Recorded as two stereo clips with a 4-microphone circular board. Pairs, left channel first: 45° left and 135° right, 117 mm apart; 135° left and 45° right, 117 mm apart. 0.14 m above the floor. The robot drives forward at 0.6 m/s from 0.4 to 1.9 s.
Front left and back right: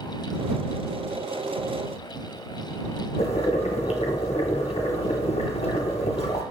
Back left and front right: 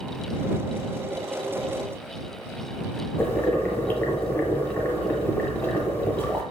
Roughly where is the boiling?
Ahead left.